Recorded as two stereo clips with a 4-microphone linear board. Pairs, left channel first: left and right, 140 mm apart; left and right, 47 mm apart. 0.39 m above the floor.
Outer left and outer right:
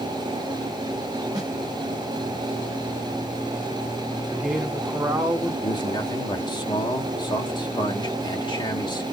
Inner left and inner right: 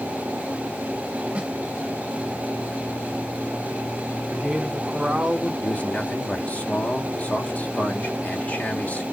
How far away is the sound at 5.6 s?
About 1.0 m.